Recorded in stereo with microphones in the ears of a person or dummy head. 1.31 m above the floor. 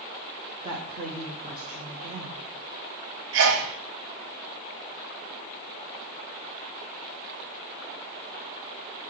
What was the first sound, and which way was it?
A woman speaking, 25° right (ahead or behind).